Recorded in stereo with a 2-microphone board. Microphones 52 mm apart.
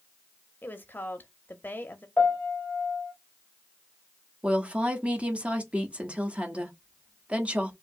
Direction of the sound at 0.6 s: 40° left (ahead or behind).